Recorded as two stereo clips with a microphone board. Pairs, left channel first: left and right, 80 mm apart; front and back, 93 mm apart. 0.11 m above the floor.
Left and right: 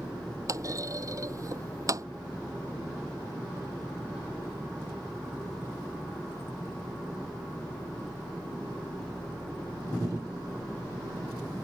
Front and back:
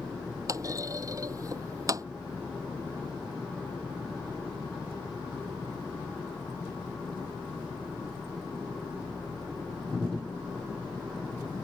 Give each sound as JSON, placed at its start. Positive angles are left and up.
{"t": 0.5, "sound": "a clunk", "azimuth_deg": -130}